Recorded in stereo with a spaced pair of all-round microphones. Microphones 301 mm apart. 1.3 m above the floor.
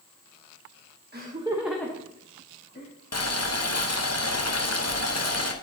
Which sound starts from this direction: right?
Laughter, at 1.1 s.